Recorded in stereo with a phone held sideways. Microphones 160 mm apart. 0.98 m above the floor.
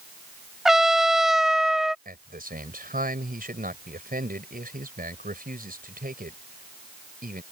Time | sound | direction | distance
0.7 | a trumpet | centre (ahead or behind) | ?
2.0 | a man speaking | 65° right (ahead or behind) | ?